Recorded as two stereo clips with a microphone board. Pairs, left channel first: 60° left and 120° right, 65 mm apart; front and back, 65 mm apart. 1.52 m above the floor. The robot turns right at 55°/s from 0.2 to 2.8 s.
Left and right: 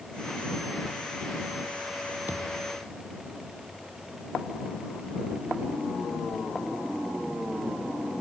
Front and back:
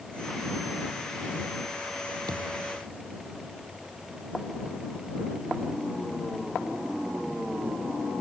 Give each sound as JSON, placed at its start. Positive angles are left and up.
{"t": 2.3, "sound": "a thud", "azimuth_deg": 180}